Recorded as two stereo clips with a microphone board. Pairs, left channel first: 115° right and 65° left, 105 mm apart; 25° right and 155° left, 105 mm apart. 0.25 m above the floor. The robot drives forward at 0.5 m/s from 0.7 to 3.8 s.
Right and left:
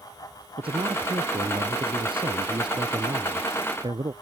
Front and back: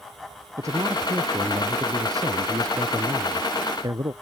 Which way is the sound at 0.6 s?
100° left.